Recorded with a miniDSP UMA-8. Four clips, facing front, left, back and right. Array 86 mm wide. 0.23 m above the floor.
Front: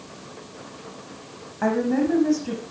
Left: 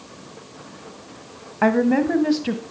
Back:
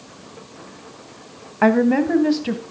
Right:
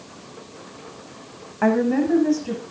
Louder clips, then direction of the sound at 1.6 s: Left 1 dB, back 6 dB; 155° left.